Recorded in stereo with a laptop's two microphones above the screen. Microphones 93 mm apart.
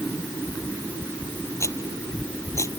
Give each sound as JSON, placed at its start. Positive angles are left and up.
{"t": 1.6, "sound": "a rattle", "side_deg": 30}